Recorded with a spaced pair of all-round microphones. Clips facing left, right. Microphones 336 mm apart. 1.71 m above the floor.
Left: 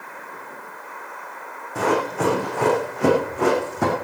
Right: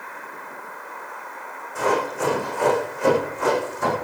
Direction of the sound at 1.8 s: 70° left (ahead or behind).